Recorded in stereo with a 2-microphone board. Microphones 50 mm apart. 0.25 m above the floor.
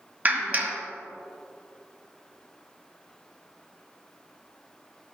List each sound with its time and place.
0.2 s a clap: 35° right (ahead or behind), 1.3 m